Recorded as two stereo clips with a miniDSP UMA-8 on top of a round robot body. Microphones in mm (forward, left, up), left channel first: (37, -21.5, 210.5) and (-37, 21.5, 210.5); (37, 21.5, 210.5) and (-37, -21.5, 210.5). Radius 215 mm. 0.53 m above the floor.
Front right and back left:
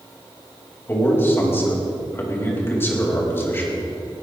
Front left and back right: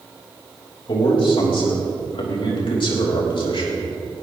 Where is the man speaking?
35° left, 4.5 m.